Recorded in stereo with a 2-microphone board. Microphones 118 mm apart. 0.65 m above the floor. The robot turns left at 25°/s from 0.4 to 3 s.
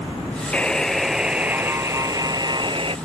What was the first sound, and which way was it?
A buzzer, 10° left.